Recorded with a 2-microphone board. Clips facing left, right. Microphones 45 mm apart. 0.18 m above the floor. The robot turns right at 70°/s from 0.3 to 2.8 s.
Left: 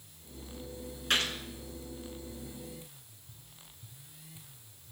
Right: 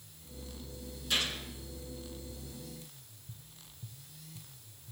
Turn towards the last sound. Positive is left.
turn(degrees=-55)  # may be behind; listen again after turning